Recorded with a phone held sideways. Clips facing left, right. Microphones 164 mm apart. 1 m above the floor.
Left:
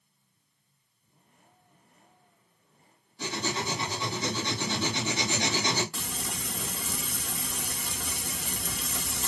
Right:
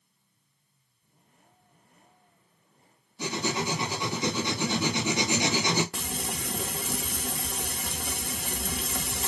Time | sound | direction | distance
3.2 | writing | 15° right (ahead or behind) | 1.5 m
5.9 | frying | 60° right (ahead or behind) | 0.7 m